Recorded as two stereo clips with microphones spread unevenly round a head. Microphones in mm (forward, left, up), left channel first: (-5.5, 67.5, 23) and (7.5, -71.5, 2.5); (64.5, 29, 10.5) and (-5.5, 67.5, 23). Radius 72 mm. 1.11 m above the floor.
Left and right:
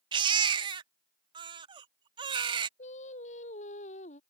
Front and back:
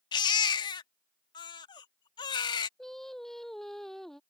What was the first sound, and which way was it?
A baby crying, 30° right.